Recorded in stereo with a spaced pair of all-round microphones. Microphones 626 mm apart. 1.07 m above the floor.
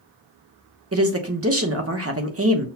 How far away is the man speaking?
About 0.9 m.